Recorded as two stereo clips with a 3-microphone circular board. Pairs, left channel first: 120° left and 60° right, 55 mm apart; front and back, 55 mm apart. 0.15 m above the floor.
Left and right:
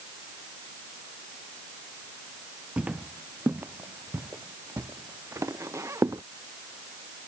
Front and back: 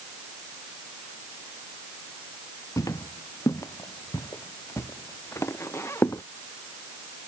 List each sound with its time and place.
2.8 s footsteps: 10° left; by 6.2 s 40° right